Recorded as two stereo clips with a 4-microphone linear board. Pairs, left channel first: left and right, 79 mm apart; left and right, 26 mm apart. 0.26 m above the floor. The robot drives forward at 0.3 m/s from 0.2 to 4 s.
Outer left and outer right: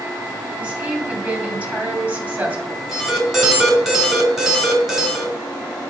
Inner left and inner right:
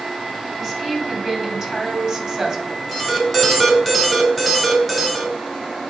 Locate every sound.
0.6 s a woman speaking: 20° right (ahead or behind), 2 m; by 2.8 s 25° right (ahead or behind), 1.8 m
2.9 s an alarm: 5° right (ahead or behind), 2 m